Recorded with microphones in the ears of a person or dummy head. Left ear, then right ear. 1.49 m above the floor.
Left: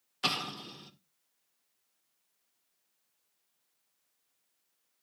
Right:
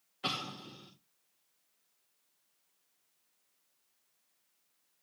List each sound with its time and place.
0.2 s an explosion: 60° left (ahead or behind), 1.9 m